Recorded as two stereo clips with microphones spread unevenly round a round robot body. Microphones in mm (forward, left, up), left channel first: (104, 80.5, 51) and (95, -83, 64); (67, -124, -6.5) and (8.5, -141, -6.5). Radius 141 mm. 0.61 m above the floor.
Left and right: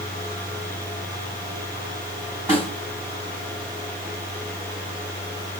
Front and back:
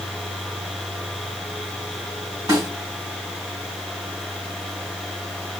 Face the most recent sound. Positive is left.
turn(degrees=-175)